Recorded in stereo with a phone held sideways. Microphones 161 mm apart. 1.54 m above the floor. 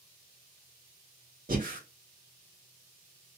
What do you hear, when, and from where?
1.5 s breathing: 60° right (ahead or behind), 1.5 m